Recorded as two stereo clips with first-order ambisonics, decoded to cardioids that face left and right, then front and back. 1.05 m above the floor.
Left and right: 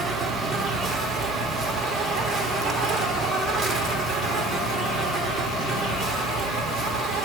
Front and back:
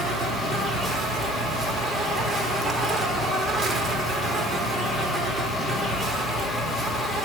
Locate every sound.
0.0 s an insect: 120° right, 0.7 m